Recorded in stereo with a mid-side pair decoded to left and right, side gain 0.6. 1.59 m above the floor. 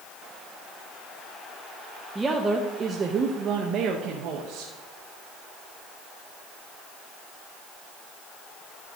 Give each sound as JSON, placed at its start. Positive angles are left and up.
{"t": 2.1, "sound": "a woman speaking", "azimuth_deg": -15, "distance_m": 1.3}